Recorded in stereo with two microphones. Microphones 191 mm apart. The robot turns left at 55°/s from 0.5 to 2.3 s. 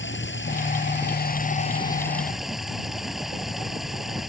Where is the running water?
95° left; by 4.3 s straight ahead.